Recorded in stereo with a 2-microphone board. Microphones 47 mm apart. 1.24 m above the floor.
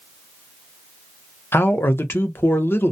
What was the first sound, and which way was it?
A man speaking, 60° left (ahead or behind).